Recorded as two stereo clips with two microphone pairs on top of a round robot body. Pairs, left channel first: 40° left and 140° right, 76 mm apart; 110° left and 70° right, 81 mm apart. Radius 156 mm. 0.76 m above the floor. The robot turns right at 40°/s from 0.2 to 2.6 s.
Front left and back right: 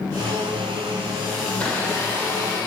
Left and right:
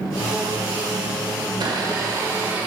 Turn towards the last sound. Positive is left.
turn(degrees=0)